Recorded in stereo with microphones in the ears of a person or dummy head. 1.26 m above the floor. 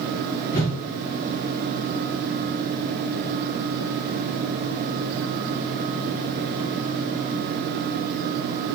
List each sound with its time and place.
0.5 s a whoosh: 35° left (ahead or behind), 0.7 m